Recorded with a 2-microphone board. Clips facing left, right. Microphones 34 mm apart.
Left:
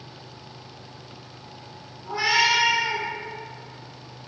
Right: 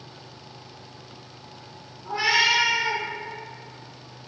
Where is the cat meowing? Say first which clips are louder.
Even; 20° right (ahead or behind), 1.0 m; by 3.0 s 65° right (ahead or behind), 1.3 m.